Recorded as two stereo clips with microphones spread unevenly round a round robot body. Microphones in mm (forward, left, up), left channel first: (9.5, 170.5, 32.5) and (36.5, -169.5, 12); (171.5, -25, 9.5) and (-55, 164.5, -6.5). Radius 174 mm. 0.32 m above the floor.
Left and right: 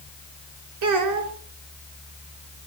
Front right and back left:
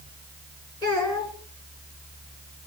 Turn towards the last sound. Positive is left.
turn(degrees=-120)